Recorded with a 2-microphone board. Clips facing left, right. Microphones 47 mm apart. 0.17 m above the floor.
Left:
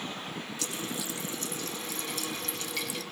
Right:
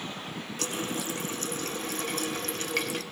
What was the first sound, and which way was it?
A running tap, 50° right (ahead or behind).